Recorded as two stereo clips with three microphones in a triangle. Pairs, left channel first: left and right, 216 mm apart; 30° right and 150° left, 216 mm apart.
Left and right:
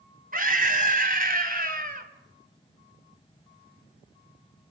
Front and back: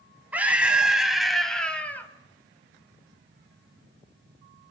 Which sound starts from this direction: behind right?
A scream, at 0.3 s.